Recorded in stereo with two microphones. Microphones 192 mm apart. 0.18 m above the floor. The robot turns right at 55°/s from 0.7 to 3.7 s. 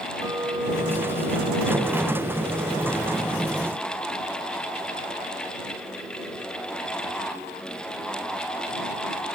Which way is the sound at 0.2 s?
165° right.